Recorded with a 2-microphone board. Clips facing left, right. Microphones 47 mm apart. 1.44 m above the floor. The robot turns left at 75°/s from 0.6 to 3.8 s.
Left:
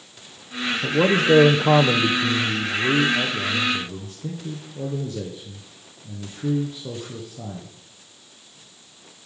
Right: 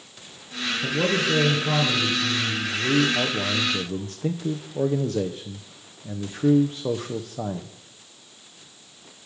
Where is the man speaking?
165° left, 0.6 m; by 7.7 s 60° right, 0.6 m.